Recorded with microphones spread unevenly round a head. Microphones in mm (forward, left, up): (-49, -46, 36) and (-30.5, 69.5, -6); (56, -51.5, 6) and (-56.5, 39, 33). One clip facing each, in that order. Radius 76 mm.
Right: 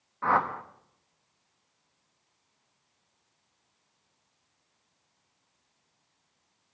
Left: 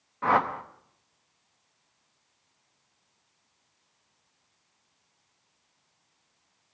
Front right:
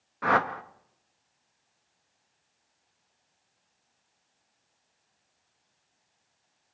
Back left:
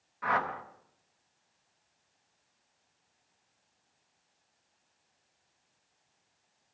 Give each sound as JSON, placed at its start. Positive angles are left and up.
{"t": 0.2, "sound": "a whoosh", "azimuth_deg": -10, "distance_m": 0.8}